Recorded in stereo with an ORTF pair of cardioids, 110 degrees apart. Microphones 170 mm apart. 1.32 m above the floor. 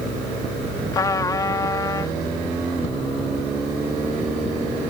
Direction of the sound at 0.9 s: 20° left.